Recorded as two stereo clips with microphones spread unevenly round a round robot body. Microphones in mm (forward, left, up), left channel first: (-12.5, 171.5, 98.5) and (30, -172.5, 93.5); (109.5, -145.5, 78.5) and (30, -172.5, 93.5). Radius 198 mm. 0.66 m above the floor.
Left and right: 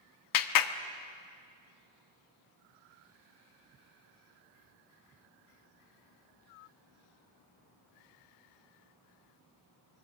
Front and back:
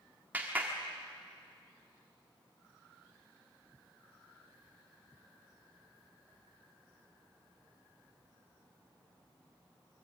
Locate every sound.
0.3 s a clap: 120° left, 1.2 m